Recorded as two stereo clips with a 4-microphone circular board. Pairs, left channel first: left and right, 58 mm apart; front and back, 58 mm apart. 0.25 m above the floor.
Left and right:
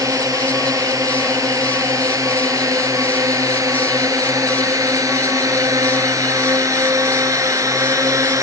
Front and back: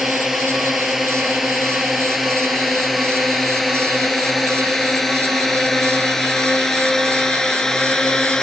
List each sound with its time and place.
0.0 s a drone: 95° right; by 8.4 s 75° right